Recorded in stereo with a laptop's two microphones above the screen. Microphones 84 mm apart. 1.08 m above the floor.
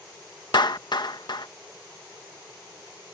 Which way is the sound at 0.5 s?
60° left (ahead or behind).